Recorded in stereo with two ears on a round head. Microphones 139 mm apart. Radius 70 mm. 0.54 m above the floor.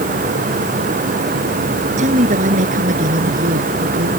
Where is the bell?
I don't hear a bell.